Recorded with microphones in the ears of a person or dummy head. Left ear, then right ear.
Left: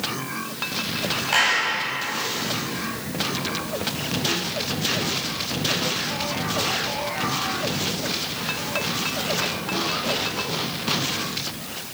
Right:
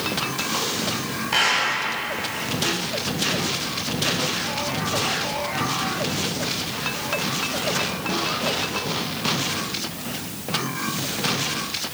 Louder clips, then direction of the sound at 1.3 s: Even; 15° left (ahead or behind).